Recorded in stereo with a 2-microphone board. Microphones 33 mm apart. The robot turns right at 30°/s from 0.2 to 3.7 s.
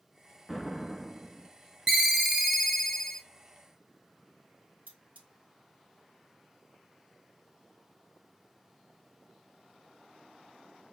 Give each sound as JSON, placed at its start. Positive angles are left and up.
{"t": 0.5, "sound": "an explosion", "azimuth_deg": 180, "distance_m": 0.6}
{"t": 1.9, "sound": "a ringtone", "azimuth_deg": -15, "distance_m": 0.6}
{"t": 4.9, "sound": "cutlery clinking", "side_deg": -65, "distance_m": 1.7}